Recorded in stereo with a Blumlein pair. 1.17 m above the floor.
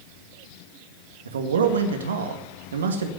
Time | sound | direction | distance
1.2 | a man speaking | 65° right | 2 m